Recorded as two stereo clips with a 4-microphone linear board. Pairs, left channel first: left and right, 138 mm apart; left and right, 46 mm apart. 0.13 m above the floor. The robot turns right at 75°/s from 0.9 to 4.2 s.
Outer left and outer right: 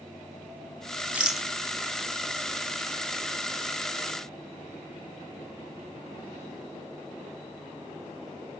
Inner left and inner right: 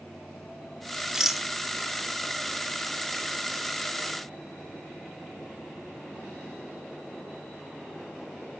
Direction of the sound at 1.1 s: 10° right (ahead or behind).